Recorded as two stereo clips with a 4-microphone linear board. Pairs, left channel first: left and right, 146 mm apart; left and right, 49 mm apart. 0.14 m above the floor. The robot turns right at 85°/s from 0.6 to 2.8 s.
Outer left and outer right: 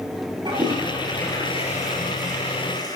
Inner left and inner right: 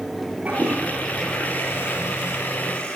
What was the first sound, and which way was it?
A toilet flushing, 35° right.